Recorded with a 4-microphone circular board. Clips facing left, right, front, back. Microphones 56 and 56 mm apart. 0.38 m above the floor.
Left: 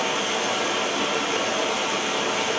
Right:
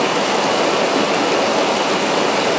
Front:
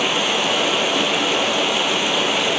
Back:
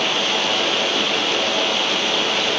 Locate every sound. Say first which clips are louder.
0.0 s running water: right 8 dB, front 1 dB; 85° right, 0.8 m